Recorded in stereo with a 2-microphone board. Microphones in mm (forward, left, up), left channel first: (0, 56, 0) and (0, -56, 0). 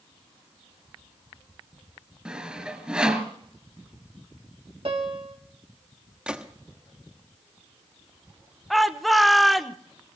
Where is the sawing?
10° right (ahead or behind), 3 m.